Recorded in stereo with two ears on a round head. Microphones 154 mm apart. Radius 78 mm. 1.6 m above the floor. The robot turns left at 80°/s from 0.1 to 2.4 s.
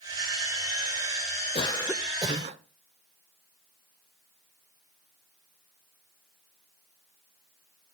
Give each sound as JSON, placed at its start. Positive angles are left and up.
{"t": 1.6, "sound": "a cough", "azimuth_deg": 30, "distance_m": 0.8}